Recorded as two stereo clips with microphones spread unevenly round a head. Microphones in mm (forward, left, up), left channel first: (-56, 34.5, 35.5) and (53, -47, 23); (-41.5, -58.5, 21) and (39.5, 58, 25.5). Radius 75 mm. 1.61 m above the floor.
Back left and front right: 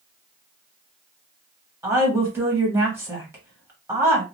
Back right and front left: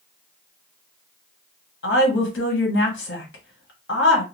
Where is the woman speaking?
115° right, 1.4 m.